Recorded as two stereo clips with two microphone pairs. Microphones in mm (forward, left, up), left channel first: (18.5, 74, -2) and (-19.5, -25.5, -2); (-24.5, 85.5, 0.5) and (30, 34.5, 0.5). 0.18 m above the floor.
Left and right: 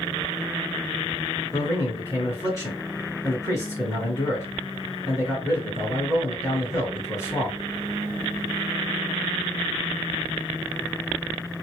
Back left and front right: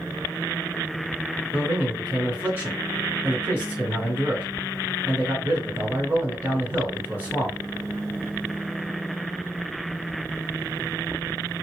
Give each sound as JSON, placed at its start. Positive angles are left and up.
{"t": 1.5, "sound": "a man speaking", "azimuth_deg": 15, "distance_m": 1.9}